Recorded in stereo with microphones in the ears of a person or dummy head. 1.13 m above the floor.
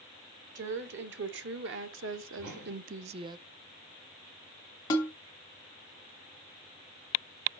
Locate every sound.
0.6 s a woman speaking: 60° right (ahead or behind), 1.5 m; by 3.4 s 20° right (ahead or behind), 0.5 m
2.4 s a whoosh: 60° right (ahead or behind), 3 m
4.9 s a snare drum: 20° left (ahead or behind), 1.4 m